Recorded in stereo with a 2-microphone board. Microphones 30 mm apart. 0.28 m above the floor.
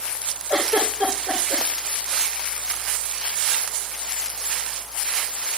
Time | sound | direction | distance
0.5 | a giggle | 85° right | 8 m